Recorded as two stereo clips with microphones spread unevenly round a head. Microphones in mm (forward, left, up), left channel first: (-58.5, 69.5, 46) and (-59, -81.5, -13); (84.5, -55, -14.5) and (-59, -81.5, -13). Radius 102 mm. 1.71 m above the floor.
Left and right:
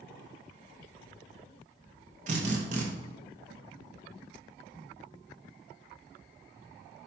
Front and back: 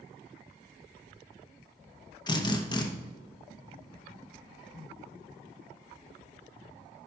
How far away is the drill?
About 1.0 m.